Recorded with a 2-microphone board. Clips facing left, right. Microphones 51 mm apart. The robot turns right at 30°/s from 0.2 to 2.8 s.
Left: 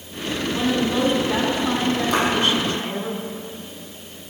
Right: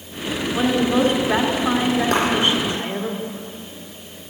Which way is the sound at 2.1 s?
55° right (ahead or behind).